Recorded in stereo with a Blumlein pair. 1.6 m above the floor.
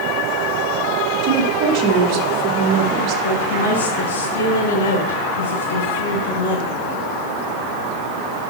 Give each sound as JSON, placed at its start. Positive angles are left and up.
{"t": 1.2, "sound": "a woman speaking", "azimuth_deg": -35, "distance_m": 1.3}
{"t": 3.2, "sound": "a woman speaking", "azimuth_deg": 60, "distance_m": 2.5}